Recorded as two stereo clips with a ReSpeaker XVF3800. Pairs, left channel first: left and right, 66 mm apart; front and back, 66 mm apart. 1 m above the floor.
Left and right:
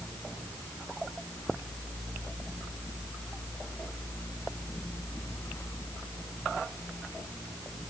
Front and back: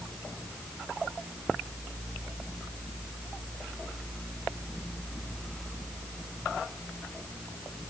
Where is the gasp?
I don't hear a gasp.